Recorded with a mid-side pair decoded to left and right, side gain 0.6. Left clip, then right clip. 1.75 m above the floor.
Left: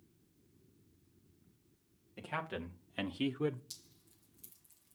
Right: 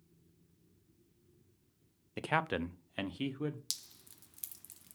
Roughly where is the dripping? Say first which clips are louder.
Right 11 dB; right.